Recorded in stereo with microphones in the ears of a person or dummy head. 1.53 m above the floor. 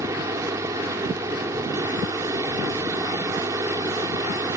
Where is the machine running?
20° right (ahead or behind).